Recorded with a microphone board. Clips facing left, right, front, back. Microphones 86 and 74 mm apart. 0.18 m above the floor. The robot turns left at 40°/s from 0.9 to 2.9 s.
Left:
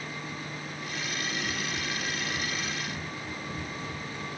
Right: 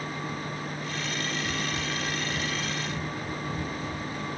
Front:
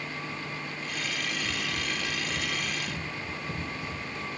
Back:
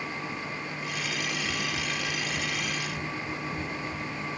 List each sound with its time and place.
1.4 s running footsteps: 70° left, 7 m; by 4.4 s 10° right, 6.5 m